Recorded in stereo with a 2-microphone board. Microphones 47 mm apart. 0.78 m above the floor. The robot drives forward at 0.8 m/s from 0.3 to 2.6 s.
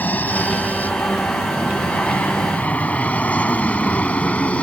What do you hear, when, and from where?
0.0 s an aircraft: 35° left (ahead or behind); by 4.6 s 30° left (ahead or behind)